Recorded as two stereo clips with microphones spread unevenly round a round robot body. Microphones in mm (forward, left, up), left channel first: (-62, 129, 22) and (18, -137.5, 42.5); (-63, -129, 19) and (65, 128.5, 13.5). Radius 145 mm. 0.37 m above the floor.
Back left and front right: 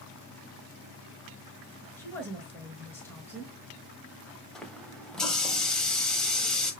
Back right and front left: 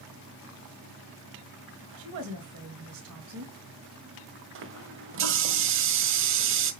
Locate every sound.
2.0 s a woman speaking: 25° left, 4 m
4.5 s a running tap: 20° left, 1.4 m